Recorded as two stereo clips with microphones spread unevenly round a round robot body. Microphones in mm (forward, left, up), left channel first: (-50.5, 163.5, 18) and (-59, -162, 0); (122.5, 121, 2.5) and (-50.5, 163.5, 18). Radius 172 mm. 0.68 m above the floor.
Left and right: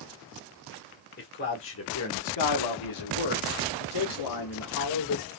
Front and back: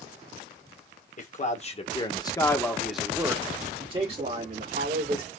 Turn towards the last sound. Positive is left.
turn(degrees=125)